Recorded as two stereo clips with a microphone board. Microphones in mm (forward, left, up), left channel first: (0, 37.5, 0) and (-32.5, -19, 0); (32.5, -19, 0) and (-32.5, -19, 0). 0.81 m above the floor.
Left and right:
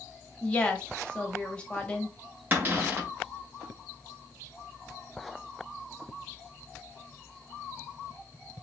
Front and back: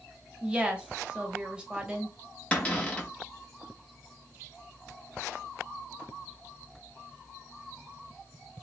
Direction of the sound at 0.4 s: 120° left.